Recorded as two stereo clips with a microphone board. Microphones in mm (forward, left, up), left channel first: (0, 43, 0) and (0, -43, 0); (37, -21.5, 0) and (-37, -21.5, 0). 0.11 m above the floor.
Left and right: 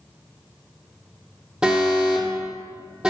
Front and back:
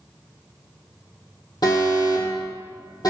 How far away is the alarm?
About 3.5 m.